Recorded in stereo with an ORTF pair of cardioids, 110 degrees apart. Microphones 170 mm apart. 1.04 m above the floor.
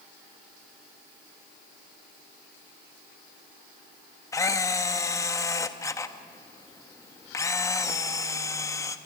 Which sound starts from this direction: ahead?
A camera shutter, at 4.3 s.